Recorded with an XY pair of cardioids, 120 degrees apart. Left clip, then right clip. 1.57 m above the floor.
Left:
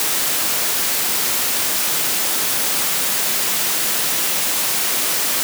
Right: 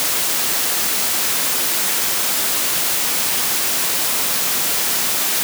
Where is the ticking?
I don't hear ticking.